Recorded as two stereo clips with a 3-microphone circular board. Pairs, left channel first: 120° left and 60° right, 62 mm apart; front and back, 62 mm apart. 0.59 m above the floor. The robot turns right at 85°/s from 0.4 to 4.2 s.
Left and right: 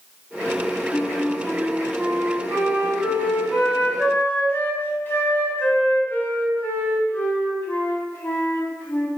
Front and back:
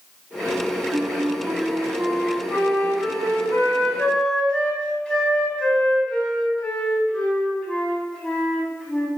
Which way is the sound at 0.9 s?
150° left.